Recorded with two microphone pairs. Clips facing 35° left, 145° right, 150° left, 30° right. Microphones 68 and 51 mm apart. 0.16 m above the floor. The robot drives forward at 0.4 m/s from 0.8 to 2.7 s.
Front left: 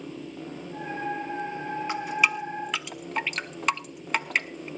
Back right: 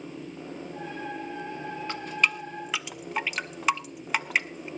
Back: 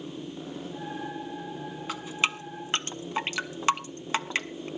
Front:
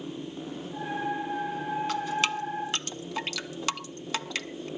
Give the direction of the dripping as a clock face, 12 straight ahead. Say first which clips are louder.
Front left 2 dB, back 2 dB; 9 o'clock.